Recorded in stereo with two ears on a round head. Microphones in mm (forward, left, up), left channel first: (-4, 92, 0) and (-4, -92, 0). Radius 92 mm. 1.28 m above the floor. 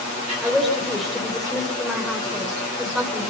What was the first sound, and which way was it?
A woman speaking, centre (ahead or behind).